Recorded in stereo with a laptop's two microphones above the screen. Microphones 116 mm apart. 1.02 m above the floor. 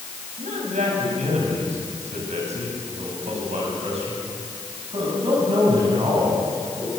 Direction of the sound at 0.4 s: 80° right.